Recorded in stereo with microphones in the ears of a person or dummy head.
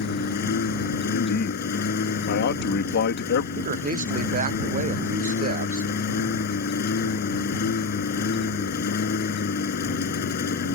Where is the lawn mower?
50° left (ahead or behind).